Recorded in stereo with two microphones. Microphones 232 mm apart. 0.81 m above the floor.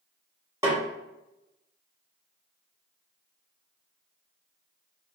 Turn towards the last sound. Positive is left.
turn(degrees=-15)  # may be behind; listen again after turning